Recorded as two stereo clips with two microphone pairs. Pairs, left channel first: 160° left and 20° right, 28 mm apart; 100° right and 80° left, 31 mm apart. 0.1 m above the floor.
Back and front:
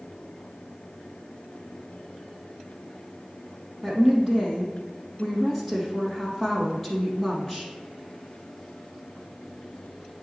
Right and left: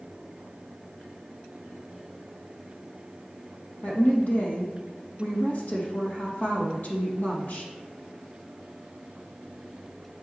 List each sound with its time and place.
3.8 s a woman speaking: 115° right, 3 m